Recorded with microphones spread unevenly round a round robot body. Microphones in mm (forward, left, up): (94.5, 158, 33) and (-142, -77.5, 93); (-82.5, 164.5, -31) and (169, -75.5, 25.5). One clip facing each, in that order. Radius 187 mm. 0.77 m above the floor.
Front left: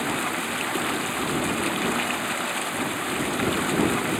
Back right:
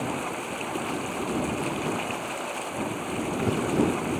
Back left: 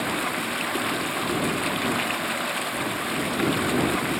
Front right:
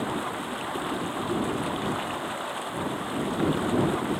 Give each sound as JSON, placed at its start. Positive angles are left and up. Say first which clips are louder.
{"t": 0.0, "sound": "running water", "louder": "front left 2 dB, back left 2 dB", "azimuth_deg": 95}